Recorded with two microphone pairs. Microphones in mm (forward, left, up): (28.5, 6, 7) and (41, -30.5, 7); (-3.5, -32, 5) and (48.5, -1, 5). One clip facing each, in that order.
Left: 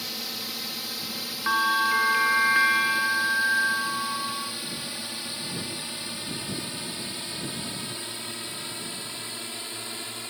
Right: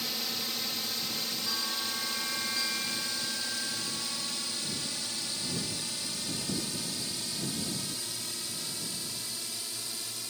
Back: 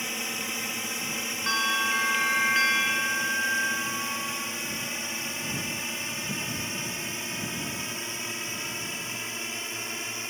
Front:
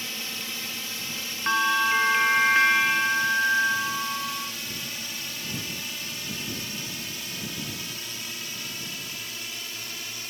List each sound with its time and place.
0.0 s a drone: 170° right; by 10.3 s 155° left
1.5 s a bell: 100° left